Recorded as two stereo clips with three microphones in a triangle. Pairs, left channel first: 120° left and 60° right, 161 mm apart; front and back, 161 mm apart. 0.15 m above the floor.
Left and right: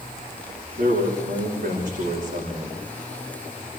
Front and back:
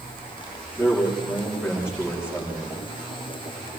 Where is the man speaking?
100° right, 9.5 m.